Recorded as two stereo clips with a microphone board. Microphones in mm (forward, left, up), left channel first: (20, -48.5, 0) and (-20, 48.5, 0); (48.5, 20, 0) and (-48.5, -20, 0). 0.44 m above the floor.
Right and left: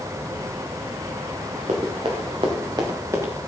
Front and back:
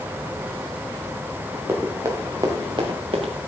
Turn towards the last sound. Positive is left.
turn(degrees=180)